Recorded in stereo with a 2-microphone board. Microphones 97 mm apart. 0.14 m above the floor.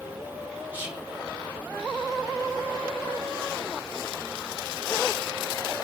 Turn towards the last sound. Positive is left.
turn(degrees=-20)  # may be behind; listen again after turning